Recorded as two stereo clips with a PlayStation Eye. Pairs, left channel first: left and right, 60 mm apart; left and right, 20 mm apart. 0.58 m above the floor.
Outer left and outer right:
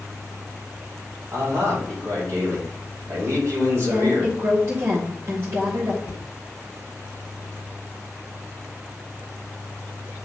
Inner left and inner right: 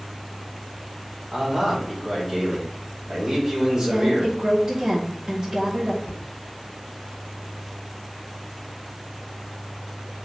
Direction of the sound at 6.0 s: 70° left (ahead or behind).